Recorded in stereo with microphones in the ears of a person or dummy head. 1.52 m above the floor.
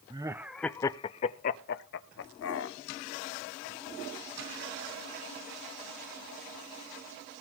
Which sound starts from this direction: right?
Laughter, at 0.1 s.